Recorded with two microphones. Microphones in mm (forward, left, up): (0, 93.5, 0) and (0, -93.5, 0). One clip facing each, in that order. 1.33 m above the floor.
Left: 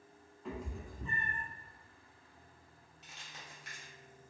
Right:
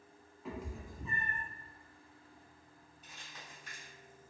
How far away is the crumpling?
About 1.0 m.